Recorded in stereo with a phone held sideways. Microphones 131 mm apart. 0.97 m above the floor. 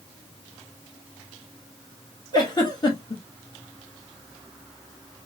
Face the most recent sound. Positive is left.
turn(degrees=35)  # may be behind; listen again after turning